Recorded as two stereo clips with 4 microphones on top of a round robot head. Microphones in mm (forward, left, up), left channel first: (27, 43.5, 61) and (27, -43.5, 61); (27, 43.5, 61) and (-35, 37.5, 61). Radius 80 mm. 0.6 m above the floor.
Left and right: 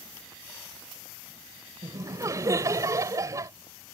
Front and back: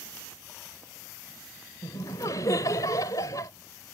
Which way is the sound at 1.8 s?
35° right.